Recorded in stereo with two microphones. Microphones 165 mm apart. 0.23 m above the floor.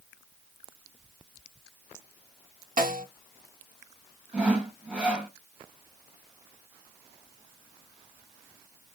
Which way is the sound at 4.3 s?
5° right (ahead or behind).